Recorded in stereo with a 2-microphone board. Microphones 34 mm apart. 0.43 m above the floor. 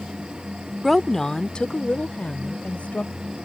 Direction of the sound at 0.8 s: Centre (ahead or behind).